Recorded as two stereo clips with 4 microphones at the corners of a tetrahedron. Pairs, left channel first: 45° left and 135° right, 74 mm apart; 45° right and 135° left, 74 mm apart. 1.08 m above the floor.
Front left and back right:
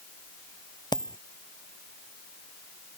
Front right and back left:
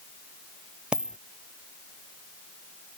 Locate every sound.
0.9 s a dropped coin: 60° left